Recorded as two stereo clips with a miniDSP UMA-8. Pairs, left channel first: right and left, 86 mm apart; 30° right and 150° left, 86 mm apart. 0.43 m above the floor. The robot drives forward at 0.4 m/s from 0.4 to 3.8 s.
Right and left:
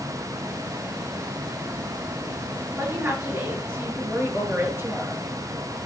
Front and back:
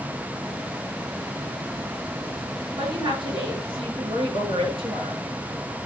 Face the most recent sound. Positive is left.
turn(degrees=155)